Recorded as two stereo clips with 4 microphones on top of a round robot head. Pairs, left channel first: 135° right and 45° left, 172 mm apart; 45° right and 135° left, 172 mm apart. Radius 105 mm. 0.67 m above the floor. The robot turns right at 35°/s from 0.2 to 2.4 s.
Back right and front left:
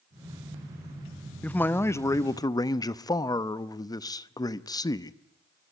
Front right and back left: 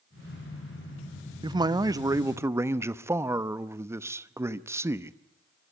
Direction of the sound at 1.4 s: 155° left.